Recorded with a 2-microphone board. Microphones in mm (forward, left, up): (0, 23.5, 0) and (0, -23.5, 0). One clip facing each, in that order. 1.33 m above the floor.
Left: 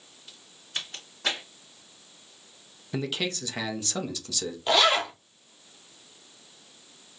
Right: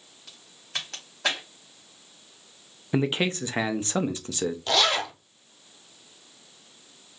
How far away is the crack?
About 1.8 m.